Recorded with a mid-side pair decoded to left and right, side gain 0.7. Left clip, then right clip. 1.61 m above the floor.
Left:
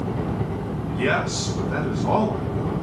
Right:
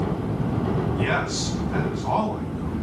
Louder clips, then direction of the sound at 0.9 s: Left 5 dB; 65° left.